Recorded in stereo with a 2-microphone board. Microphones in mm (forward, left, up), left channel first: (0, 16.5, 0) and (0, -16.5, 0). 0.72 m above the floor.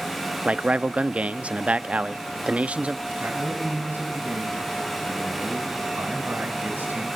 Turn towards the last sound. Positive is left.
turn(degrees=-85)